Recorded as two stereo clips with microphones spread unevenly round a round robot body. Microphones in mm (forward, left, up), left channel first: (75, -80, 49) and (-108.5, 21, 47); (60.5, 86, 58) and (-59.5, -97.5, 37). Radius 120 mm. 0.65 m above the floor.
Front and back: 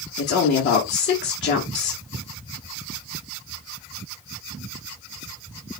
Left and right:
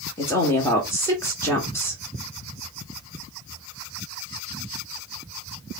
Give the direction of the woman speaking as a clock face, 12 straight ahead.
1 o'clock.